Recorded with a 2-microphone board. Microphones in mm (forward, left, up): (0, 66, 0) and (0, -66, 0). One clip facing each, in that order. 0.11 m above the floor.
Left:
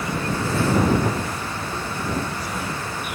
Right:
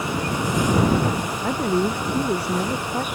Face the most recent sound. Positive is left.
turn(degrees=-60)  # may be behind; listen again after turning